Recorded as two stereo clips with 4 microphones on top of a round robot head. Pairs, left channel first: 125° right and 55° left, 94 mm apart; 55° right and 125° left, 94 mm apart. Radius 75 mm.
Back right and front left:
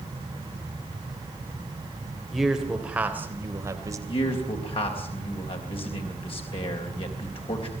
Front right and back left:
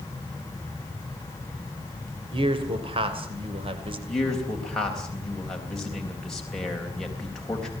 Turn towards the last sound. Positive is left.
turn(degrees=-135)